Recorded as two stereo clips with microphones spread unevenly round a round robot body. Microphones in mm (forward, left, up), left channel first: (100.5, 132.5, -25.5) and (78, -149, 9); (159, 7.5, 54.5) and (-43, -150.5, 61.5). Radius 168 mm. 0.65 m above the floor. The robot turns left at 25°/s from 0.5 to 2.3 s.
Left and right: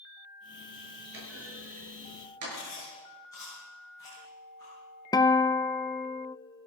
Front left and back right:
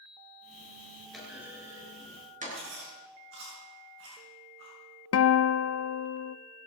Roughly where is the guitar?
Ahead.